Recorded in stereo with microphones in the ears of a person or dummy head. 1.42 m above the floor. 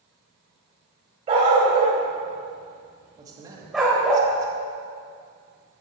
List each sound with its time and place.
1.3 s a dog barking: 30° right (ahead or behind), 3 m; by 4.2 s 10° left (ahead or behind), 2.5 m
3.2 s a man speaking: 20° right (ahead or behind), 2.0 m